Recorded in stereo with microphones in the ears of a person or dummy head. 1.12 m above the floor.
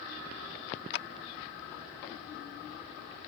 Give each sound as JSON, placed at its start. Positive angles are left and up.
{"t": 0.9, "sound": "a clap", "side_deg": 55}